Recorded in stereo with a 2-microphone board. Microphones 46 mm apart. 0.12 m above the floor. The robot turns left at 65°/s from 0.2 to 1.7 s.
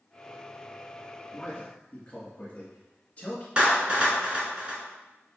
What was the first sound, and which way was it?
A man speaking, 20° left (ahead or behind).